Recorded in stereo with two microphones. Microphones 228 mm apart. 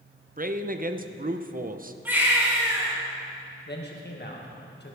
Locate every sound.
0.4 s a man speaking: 40° right (ahead or behind), 0.6 m
2.0 s a baby crying: 10° right (ahead or behind), 3 m
3.7 s a man speaking: 45° left (ahead or behind), 1.8 m